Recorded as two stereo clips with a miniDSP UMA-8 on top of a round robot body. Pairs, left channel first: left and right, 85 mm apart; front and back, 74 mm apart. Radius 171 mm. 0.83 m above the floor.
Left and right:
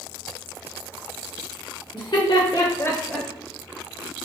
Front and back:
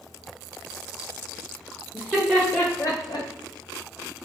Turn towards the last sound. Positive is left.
turn(degrees=0)